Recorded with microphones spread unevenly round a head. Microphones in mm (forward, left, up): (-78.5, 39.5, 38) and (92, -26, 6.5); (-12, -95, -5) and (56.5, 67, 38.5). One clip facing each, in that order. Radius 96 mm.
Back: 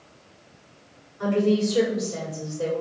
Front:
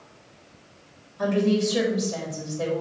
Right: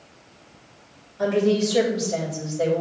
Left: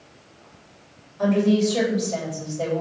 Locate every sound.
1.2 s a woman speaking: 30° right, 3.5 m